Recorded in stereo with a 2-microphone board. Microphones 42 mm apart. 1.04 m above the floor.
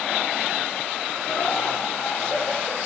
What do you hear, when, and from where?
1.3 s laughter: 60° left (ahead or behind), 2.5 m; by 2.8 s 75° left (ahead or behind), 4 m